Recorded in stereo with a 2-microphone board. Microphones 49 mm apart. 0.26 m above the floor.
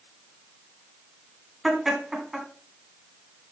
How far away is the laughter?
About 2.5 m.